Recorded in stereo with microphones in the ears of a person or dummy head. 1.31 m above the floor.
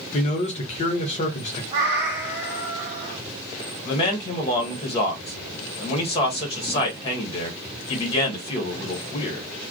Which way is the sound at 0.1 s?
40° left (ahead or behind).